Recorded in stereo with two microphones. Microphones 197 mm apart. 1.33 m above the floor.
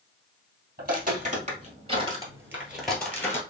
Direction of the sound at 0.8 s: 45° right (ahead or behind).